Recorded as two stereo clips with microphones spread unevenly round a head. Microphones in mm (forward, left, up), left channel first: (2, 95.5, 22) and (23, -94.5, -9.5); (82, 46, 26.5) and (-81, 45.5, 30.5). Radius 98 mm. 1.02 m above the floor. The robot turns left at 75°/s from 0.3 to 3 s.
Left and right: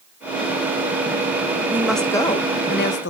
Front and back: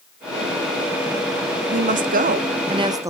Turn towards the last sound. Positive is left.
turn(degrees=115)